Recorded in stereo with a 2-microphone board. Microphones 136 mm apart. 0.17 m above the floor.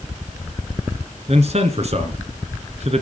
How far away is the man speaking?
About 2.0 m.